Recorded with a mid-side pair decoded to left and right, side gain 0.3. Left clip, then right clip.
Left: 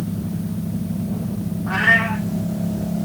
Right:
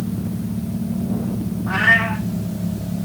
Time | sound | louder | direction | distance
1.7 | a cat meowing | right 1 dB | 20° left | 3 m